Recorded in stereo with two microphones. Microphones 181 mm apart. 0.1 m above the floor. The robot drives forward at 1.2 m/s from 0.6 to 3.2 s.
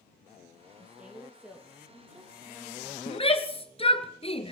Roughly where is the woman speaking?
Centre.